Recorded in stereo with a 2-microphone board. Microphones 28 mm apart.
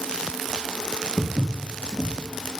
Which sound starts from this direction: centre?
Footsteps, at 1.2 s.